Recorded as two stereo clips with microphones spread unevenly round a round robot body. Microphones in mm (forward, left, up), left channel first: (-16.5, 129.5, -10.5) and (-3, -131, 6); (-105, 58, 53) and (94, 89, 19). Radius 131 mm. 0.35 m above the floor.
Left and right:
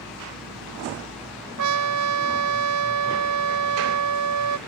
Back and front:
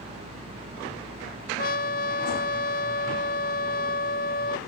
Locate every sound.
1.6 s a trumpet: 115° right